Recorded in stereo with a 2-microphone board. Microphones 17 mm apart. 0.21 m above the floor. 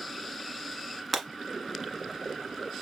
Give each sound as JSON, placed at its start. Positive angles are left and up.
{"t": 1.1, "sound": "breaking glass", "side_deg": 0, "distance_m": 1.3}